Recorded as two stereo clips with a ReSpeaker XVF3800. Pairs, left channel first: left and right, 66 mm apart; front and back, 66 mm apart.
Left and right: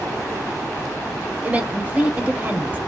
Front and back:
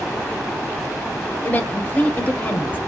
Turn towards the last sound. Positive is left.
turn(degrees=-40)